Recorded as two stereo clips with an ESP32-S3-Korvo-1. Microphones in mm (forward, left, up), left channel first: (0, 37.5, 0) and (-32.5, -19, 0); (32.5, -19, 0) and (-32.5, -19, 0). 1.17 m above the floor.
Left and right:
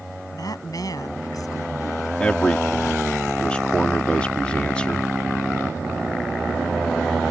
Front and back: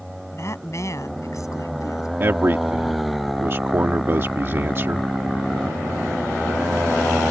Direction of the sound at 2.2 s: 135° left.